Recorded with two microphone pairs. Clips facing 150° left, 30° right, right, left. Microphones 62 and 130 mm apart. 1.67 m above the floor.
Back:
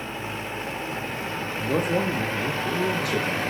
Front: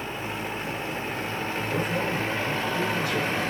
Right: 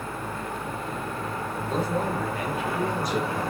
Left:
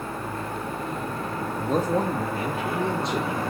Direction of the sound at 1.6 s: 125° left.